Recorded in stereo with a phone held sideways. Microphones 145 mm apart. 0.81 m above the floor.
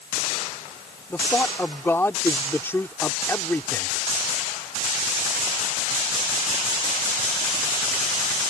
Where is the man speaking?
15° left (ahead or behind).